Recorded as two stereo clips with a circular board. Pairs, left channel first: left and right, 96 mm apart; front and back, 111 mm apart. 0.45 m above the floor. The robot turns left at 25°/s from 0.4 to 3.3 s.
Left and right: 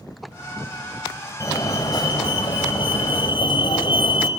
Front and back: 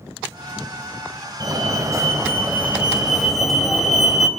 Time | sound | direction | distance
1.4 | a fire alarm | 135° left | 3.5 m